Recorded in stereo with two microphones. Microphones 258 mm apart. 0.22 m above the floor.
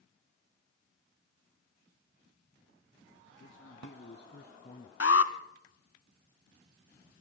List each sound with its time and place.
3.4 s a man speaking: 55° left (ahead or behind), 3 m; by 4.9 s 25° left (ahead or behind), 1.7 m
5.0 s an alarm: 60° left (ahead or behind), 1.4 m